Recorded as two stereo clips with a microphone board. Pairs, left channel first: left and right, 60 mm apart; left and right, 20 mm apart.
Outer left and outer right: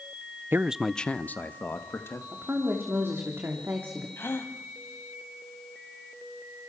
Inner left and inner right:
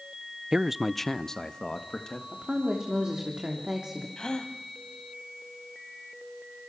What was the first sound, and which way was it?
A man speaking, 40° right (ahead or behind).